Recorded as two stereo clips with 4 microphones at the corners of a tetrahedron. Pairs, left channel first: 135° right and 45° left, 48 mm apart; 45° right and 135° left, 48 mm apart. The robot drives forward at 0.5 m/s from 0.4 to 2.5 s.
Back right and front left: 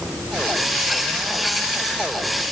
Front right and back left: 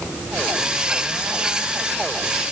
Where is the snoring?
I don't hear snoring.